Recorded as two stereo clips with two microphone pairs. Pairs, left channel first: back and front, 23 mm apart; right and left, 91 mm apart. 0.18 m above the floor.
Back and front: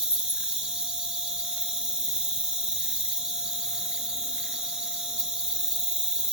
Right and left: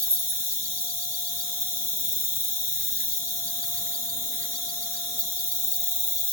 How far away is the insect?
About 1.1 m.